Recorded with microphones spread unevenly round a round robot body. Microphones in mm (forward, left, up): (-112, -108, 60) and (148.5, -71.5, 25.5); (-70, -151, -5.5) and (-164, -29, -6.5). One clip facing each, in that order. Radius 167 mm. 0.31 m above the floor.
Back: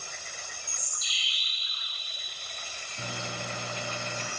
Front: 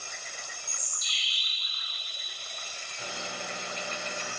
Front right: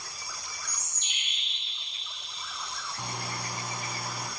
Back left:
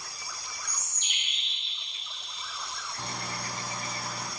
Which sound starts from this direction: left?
A bird, at 0.7 s.